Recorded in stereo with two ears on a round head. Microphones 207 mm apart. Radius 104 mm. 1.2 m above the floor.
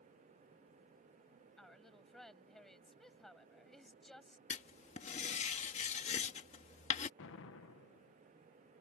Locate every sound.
1.6 s a woman speaking: centre (ahead or behind)
4.5 s writing: 30° left (ahead or behind)
7.2 s an explosion: 60° left (ahead or behind)